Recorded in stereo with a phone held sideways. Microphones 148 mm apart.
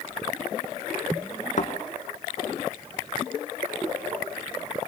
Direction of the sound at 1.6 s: 60° left (ahead or behind).